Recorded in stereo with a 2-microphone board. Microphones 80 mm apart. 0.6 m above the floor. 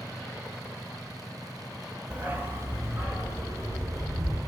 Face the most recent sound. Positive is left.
turn(degrees=-40)  # may be behind; listen again after turning